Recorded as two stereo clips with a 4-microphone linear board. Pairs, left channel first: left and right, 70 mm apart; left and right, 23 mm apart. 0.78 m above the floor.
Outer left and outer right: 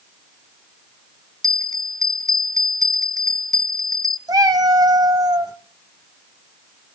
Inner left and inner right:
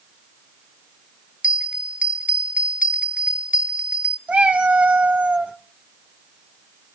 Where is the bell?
55° right (ahead or behind), 0.6 m.